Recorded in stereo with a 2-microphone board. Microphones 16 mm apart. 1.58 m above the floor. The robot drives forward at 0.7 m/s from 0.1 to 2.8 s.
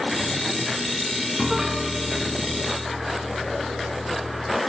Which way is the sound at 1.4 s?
20° right (ahead or behind).